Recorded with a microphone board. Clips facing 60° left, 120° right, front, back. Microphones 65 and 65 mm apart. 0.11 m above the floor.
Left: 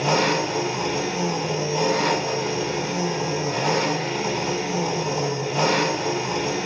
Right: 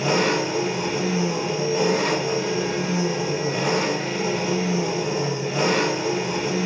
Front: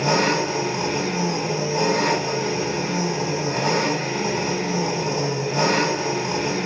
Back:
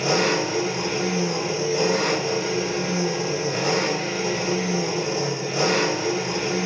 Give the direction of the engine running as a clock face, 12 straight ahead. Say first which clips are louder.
Even, front 1 dB; 1 o'clock.